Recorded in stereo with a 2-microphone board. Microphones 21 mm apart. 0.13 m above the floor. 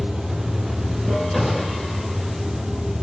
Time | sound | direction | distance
0.0 | running water | 60° right (ahead or behind) | 3.5 m
1.3 | a gunshot | 5° right (ahead or behind) | 5.5 m